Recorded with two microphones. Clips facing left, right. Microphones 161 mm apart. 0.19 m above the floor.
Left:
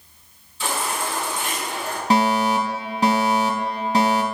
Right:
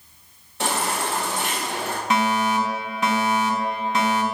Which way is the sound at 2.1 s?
35° left (ahead or behind).